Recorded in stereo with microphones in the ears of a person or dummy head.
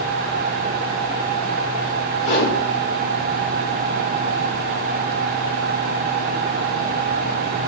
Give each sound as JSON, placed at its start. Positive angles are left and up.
{"t": 2.2, "sound": "a whoosh", "side_deg": 45, "distance_m": 1.9}